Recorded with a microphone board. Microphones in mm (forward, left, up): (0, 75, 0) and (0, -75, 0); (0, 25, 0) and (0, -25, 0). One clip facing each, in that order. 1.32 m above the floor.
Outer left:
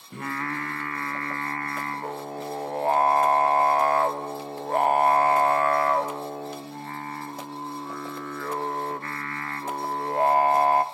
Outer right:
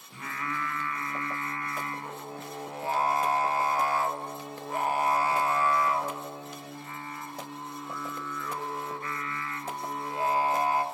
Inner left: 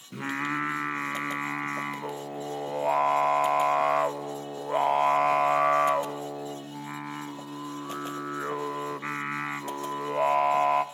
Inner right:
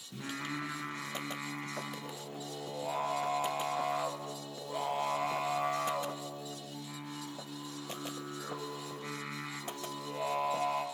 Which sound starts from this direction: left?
Singing, at 0.1 s.